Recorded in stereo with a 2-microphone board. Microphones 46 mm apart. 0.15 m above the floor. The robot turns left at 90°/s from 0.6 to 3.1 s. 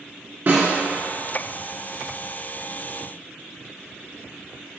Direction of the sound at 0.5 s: 40° right (ahead or behind).